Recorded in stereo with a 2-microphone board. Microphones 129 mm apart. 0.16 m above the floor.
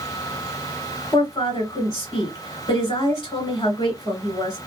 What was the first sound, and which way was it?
A woman speaking, 30° left (ahead or behind).